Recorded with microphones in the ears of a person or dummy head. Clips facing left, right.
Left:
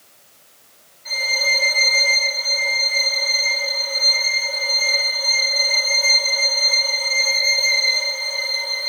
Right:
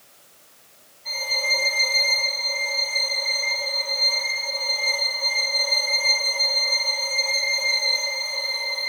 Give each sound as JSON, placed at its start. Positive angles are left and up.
{"t": 1.1, "sound": "a violin", "side_deg": 20, "distance_m": 8.5}